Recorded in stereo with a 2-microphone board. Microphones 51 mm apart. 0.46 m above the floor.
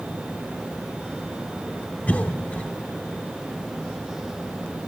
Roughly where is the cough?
Left.